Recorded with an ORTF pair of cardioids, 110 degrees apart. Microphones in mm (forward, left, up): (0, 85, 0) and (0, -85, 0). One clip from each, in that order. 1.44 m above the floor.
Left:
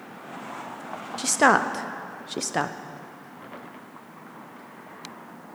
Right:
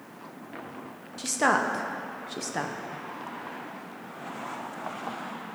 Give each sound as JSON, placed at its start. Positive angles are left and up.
{"t": 1.2, "sound": "a woman speaking", "azimuth_deg": 30, "distance_m": 0.6}